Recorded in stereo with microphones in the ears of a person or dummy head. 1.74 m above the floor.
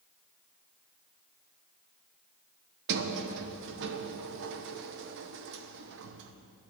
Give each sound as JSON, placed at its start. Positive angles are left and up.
{"t": 2.9, "sound": "a sliding door", "side_deg": -60, "distance_m": 1.0}